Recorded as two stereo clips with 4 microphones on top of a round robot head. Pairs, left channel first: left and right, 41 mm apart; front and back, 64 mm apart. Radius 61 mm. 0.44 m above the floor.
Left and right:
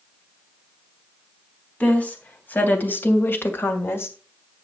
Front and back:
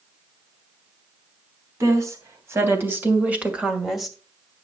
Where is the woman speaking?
145° left, 3.5 m; by 4.1 s 90° left, 2.5 m.